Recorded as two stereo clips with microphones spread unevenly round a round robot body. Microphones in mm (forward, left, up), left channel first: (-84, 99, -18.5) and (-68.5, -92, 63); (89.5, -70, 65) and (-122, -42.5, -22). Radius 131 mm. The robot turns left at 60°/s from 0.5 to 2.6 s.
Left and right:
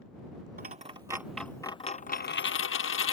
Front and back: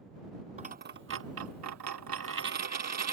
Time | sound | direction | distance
0.6 | a dropped coin | 125° right | ?